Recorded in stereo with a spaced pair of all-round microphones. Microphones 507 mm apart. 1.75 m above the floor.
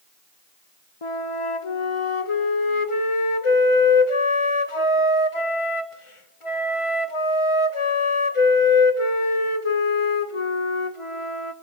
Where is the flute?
70° left (ahead or behind), 1.0 m.